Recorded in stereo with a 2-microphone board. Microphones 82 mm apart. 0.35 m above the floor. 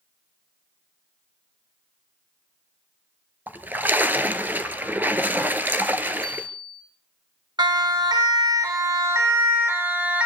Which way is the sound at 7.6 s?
65° right (ahead or behind).